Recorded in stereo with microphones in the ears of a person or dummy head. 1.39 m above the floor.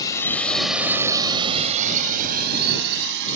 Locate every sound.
0.0 s a drone: 15° left (ahead or behind); by 3.4 s 65° right (ahead or behind)